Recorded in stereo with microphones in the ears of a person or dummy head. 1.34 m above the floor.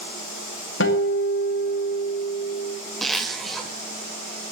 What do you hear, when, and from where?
0.8 s a guitar: 80° left, 2 m
3.0 s a zipper: centre (ahead or behind), 1.5 m